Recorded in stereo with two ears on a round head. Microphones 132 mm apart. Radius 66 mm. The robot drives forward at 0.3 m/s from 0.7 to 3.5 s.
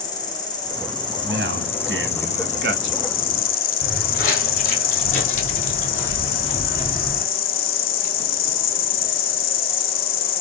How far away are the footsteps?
About 2 m.